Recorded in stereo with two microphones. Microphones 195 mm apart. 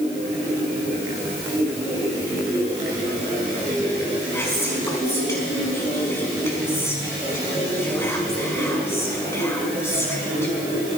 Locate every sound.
4.3 s whispering: 10° left (ahead or behind), 5 m